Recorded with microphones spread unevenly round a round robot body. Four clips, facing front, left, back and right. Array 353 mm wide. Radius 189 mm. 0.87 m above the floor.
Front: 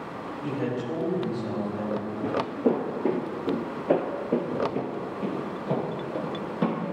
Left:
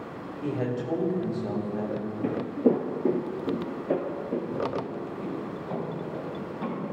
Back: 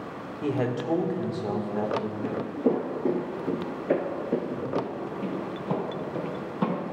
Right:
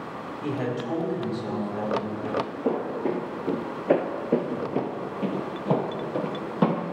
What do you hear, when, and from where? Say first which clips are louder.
0.4 s a man speaking: even, back 3 dB; 170° right, 3 m
2.2 s footsteps: left 8 dB, front 3 dB; 95° left, 1.0 m; by 6.8 s 90° right, 2.0 m